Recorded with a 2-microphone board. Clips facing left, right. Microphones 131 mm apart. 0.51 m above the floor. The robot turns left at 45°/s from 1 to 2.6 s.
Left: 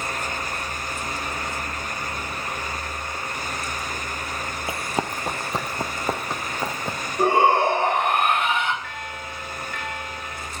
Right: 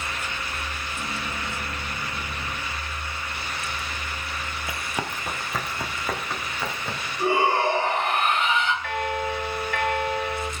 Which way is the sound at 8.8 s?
65° right (ahead or behind).